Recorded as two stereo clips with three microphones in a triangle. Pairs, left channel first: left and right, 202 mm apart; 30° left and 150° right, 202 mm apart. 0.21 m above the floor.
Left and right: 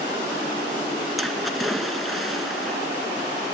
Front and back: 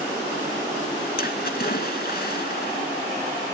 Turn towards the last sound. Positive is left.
turn(degrees=0)